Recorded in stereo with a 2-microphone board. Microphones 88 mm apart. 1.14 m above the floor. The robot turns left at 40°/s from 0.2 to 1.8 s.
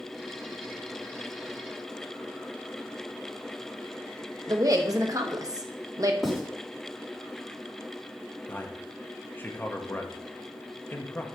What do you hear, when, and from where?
4.5 s a woman speaking: 40° right (ahead or behind), 1.0 m
6.2 s writing: 5° right (ahead or behind), 2.5 m
8.5 s a man speaking: 20° left (ahead or behind), 0.9 m